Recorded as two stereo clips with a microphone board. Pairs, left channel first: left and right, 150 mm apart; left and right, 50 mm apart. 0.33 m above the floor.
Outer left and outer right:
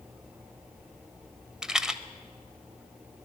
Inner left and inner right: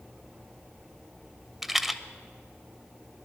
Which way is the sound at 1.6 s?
5° right (ahead or behind).